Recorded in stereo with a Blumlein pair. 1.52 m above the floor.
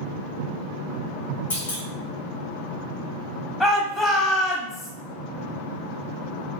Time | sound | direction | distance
1.5 | a clunk | 65° left | 1.2 m
3.6 | a shout | 10° left | 1.1 m